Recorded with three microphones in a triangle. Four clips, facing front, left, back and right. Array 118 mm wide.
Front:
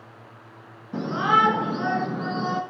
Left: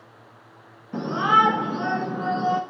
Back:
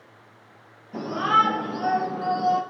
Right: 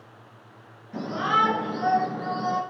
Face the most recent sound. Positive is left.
turn(degrees=45)